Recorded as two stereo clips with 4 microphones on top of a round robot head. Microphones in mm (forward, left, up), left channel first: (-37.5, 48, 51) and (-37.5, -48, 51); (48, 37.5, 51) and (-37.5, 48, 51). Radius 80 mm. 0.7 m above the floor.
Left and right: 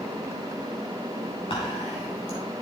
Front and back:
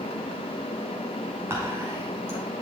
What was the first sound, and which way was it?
Whispering, 115° left.